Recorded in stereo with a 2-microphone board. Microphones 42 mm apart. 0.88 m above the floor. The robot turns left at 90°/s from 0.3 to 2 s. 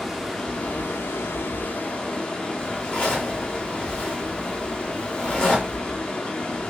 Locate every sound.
0.0 s running water: 175° left, 0.8 m; by 6.7 s 25° left, 0.8 m
2.6 s a zipper: 25° left (ahead or behind), 1.3 m